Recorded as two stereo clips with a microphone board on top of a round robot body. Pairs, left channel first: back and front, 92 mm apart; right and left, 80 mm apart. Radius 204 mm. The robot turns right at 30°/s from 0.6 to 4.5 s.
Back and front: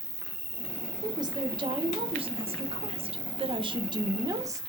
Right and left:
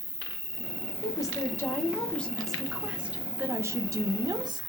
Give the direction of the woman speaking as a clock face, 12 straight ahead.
2 o'clock.